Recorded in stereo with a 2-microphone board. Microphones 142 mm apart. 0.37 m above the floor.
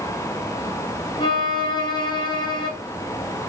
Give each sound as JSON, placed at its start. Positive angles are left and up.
{"t": 1.2, "sound": "a violin", "side_deg": 35, "distance_m": 1.5}